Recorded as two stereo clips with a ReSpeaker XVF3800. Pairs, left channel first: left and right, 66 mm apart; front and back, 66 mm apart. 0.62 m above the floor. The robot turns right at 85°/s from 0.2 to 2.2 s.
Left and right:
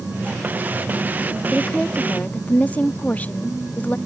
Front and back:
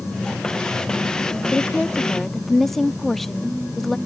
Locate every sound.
1.5 s a woman speaking: 20° left; by 4.0 s 80° left